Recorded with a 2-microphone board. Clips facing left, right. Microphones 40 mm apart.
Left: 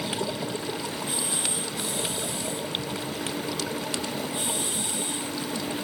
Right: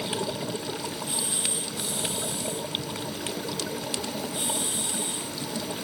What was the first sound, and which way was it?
Only background noise.